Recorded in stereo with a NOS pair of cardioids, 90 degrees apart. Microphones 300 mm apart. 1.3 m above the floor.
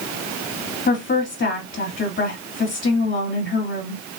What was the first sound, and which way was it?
A woman speaking, 40° left.